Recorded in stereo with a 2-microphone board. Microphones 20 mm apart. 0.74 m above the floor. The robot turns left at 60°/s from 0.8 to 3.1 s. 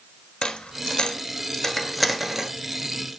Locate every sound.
0.4 s a dropped coin: 50° left (ahead or behind), 1.1 m; by 2.5 s 25° right (ahead or behind), 1.1 m